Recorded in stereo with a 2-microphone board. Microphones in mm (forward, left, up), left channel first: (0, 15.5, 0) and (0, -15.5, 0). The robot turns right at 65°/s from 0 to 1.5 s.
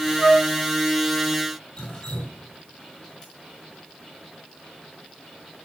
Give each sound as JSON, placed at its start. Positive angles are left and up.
{"t": 0.2, "sound": "a flute", "side_deg": -15, "distance_m": 3.0}
{"t": 1.8, "sound": "dripping", "side_deg": 35, "distance_m": 4.5}